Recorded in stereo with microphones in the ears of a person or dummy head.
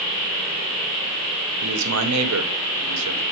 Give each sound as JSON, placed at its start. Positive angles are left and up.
{"t": 1.6, "sound": "a man speaking", "side_deg": -85, "distance_m": 1.7}